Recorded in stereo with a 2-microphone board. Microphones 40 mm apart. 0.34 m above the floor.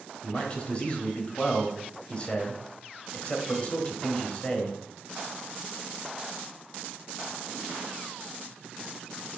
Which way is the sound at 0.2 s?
30° left (ahead or behind).